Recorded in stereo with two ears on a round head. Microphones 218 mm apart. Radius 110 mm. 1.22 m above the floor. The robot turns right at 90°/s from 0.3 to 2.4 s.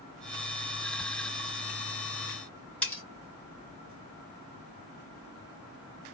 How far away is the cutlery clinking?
About 2.5 m.